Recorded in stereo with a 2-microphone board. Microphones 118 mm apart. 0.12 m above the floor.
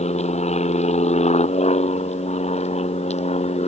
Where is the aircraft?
70° left (ahead or behind); by 3.7 s 65° left (ahead or behind).